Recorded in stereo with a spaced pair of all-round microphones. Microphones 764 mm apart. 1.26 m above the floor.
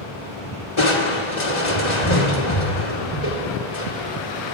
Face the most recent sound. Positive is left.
turn(degrees=65)  # may be behind; listen again after turning